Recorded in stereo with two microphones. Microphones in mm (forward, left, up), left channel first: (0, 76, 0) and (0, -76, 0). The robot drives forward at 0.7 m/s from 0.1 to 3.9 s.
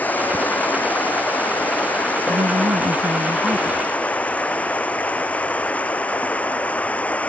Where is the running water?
10° left (ahead or behind).